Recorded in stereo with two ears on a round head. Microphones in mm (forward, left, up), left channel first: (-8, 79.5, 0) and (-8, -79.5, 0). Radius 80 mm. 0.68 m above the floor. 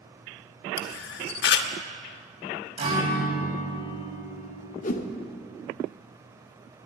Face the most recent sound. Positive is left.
turn(degrees=45)  # may be behind; listen again after turning